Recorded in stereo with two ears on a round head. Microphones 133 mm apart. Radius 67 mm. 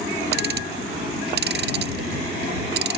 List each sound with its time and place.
0.3 s ticking: 80° right